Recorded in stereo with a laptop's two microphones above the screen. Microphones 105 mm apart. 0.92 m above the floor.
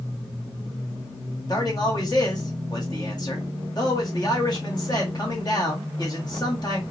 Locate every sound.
1.5 s a man speaking: 40° left (ahead or behind), 1.9 m